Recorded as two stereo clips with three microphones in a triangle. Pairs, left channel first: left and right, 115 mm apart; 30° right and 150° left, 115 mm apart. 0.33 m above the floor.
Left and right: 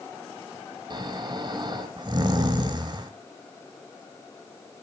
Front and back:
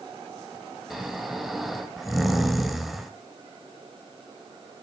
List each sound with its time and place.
0.9 s snoring: 120° right, 1.1 m